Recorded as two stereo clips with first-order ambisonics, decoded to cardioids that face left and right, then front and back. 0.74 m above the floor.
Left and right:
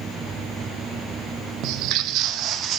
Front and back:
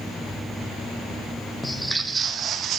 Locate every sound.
1.6 s footsteps: 80° right, 1.1 m; by 2.8 s 135° right, 1.7 m